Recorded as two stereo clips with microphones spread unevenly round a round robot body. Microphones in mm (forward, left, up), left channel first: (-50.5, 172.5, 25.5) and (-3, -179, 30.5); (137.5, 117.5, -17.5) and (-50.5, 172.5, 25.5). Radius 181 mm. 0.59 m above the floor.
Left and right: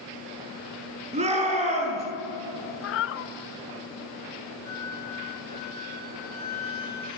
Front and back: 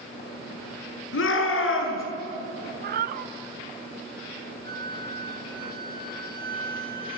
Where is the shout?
10° right, 8.5 m.